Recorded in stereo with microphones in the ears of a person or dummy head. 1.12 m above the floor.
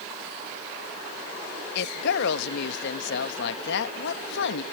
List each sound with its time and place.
1.8 s a woman speaking: 65° left (ahead or behind)